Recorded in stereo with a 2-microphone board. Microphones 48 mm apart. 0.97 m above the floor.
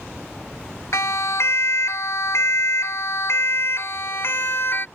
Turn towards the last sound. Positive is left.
turn(degrees=55)  # may be behind; listen again after turning